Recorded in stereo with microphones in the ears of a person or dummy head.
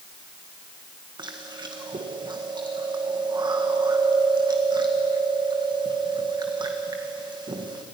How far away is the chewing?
About 1.6 m.